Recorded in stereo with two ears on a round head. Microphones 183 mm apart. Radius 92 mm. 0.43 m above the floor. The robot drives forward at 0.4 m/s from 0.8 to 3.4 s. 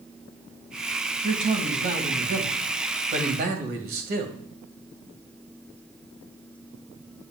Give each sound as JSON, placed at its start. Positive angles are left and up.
{"t": 1.2, "sound": "a man speaking", "side_deg": -35, "distance_m": 2.5}